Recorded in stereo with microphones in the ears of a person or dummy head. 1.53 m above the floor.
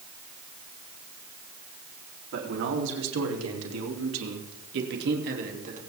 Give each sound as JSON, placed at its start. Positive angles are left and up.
{"t": 2.3, "sound": "a man speaking", "side_deg": -70, "distance_m": 4.0}